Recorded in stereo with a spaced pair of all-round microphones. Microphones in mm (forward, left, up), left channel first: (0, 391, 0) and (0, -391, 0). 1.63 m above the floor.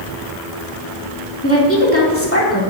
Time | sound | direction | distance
1.4 | a woman speaking | 15° left (ahead or behind) | 2.5 m